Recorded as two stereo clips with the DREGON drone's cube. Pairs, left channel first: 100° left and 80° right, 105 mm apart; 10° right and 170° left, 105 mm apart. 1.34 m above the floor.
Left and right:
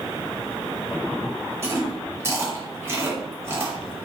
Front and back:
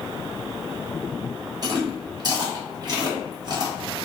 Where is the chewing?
145° right, 0.8 m.